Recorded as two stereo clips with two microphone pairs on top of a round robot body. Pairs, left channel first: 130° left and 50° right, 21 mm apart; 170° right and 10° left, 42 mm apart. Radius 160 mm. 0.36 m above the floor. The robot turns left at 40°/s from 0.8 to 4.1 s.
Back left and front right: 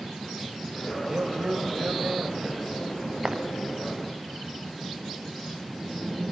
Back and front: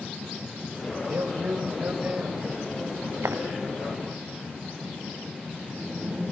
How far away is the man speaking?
About 2.5 m.